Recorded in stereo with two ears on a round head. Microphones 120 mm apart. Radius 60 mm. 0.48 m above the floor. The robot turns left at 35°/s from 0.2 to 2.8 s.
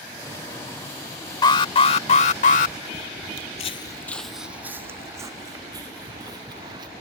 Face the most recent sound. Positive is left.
turn(degrees=-30)  # may be behind; listen again after turning